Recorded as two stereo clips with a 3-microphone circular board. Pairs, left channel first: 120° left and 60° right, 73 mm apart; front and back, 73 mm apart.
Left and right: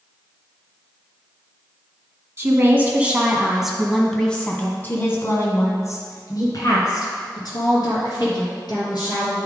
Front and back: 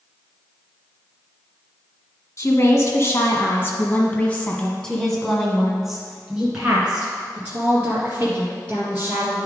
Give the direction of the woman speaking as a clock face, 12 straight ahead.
1 o'clock.